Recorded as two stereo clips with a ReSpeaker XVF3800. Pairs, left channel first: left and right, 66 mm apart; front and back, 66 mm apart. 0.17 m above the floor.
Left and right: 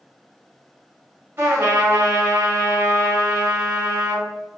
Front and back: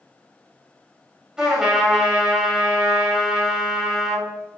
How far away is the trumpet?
About 1.7 m.